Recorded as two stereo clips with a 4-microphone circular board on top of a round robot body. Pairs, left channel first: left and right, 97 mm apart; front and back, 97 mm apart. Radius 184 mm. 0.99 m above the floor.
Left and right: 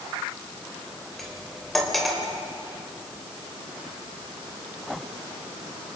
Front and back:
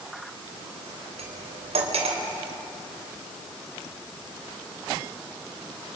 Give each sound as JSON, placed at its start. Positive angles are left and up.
{"t": 1.2, "sound": "cutlery clinking", "azimuth_deg": 180, "distance_m": 3.0}